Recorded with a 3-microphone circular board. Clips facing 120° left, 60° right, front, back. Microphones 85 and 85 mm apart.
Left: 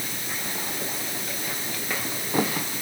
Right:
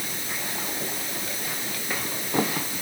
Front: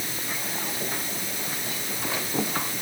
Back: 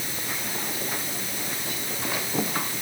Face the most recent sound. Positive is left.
No sound to turn to.